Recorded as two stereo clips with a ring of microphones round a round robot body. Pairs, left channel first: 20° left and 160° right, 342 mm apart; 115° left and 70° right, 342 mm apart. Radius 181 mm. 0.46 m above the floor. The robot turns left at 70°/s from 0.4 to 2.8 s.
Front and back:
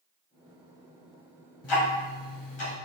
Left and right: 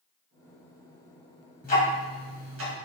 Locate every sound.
1.6 s ticking: 50° left, 2 m; by 2.8 s 25° right, 2 m